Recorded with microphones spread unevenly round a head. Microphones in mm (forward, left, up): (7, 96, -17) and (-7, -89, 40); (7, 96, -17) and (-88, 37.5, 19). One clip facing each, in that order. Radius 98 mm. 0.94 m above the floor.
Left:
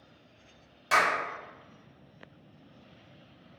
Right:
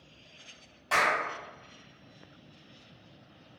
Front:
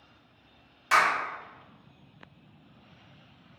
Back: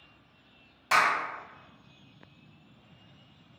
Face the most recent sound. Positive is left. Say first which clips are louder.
# left 1 dB, front 1 dB
turn(degrees=145)